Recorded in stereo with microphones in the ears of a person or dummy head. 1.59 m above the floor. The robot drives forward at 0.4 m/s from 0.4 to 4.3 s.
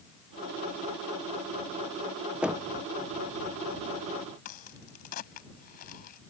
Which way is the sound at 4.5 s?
45° left (ahead or behind).